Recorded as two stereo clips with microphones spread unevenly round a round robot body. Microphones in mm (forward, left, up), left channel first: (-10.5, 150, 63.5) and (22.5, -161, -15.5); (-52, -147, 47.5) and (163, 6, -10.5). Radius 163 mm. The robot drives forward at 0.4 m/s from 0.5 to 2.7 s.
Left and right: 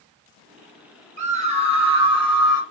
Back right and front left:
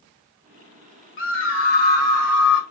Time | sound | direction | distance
1.2 | a scream | 115° right | 0.9 m